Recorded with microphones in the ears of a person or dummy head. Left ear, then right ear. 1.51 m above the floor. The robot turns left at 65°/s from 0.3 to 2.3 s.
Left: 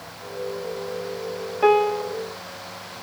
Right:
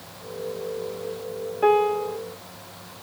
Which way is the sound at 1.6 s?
25° left.